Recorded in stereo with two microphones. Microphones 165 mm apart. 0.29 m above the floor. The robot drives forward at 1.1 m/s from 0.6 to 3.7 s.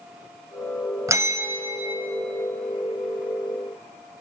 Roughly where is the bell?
Centre.